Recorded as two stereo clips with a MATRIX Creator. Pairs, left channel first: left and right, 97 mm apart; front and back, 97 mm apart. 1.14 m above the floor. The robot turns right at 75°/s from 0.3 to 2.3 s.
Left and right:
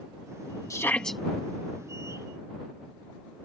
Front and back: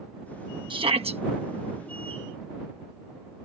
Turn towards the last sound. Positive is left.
turn(degrees=-95)